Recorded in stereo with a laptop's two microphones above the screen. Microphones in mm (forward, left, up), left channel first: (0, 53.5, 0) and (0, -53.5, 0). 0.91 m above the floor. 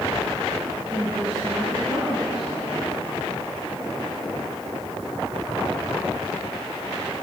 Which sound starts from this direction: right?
A woman speaking, at 0.9 s.